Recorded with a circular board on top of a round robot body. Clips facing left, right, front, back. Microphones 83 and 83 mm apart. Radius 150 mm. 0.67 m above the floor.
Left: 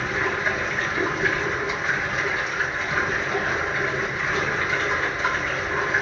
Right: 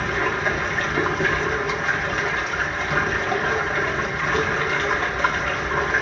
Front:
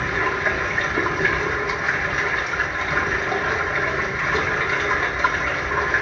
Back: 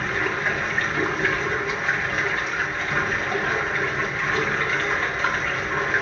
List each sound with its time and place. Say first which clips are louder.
0.0 s running water: right 2 dB, front 2 dB; 75° right, 1.0 m